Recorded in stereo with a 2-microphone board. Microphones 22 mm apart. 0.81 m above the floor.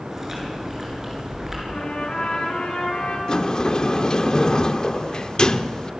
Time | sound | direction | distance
0.1 | chewing | 15° right (ahead or behind) | 9 m
1.7 | a trumpet | 60° left (ahead or behind) | 8 m
3.3 | a sliding door | 35° left (ahead or behind) | 0.9 m